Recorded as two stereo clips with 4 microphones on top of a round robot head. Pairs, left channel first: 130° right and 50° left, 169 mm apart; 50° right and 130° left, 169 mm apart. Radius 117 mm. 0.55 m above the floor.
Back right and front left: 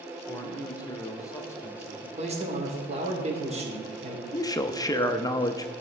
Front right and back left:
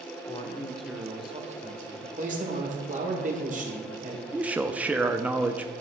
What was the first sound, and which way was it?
A man speaking, 65° right.